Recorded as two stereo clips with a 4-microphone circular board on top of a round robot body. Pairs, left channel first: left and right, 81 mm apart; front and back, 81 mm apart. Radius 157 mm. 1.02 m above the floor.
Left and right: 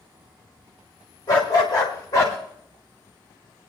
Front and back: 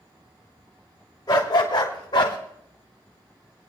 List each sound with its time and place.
1.3 s a dog barking: 45° left, 1.4 m; by 2.4 s 30° left, 0.9 m